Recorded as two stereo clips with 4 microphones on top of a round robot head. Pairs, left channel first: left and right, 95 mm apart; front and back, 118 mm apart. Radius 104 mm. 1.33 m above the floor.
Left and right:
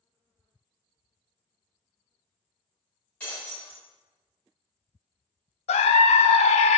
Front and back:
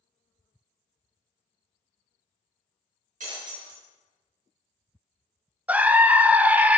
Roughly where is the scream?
Left.